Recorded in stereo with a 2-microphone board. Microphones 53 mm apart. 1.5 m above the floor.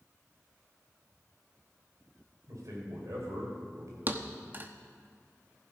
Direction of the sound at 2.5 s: 70° right (ahead or behind).